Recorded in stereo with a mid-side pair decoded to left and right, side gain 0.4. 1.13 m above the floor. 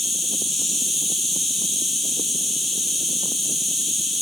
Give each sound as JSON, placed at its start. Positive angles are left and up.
{"t": 0.0, "sound": "an insect", "azimuth_deg": 35, "distance_m": 1.9}